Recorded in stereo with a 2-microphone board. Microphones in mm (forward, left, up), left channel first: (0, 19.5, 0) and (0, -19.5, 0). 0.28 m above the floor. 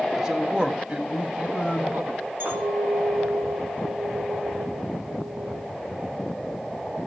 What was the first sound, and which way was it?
A man speaking, 15° right (ahead or behind).